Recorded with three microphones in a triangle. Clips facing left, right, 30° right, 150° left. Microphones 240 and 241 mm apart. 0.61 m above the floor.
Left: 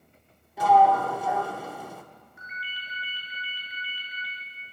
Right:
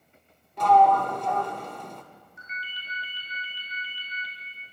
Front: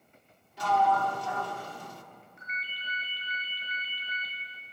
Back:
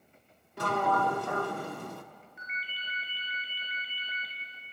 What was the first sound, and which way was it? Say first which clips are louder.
A sliding door: even, front 1 dB; 170° left.